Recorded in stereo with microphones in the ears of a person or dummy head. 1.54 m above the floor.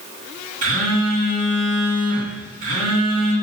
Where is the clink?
I don't hear a clink.